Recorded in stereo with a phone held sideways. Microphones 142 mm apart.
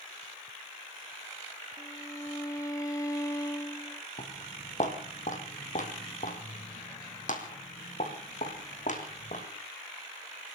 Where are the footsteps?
50° left (ahead or behind), 3 m; by 9.4 s 60° left (ahead or behind), 5 m.